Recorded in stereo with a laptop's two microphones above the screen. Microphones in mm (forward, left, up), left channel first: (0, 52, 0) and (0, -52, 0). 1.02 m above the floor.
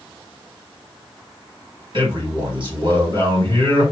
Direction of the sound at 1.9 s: 50° right (ahead or behind).